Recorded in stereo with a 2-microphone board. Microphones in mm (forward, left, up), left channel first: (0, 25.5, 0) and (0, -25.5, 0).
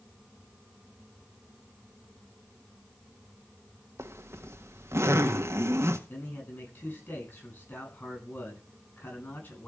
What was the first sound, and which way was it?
A zipper, 55° right (ahead or behind).